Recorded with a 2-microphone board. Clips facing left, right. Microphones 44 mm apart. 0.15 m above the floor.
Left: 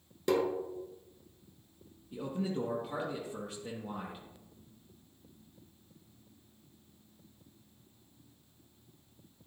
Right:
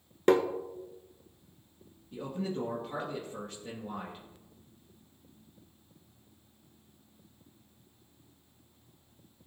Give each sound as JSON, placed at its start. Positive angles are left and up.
{"t": 0.3, "sound": "tapping", "side_deg": -45, "distance_m": 1.1}
{"t": 2.1, "sound": "a man speaking", "side_deg": 5, "distance_m": 3.0}